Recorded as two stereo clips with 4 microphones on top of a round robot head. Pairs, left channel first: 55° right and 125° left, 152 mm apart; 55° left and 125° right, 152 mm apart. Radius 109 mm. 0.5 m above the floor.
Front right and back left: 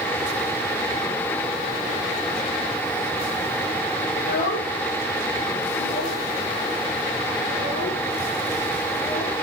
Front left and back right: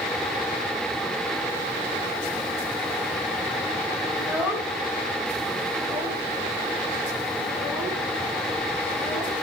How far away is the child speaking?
About 1.7 m.